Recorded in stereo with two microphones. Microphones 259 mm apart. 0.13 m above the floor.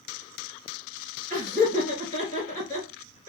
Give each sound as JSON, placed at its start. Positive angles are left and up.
{"t": 1.3, "sound": "laughter", "side_deg": -30, "distance_m": 1.9}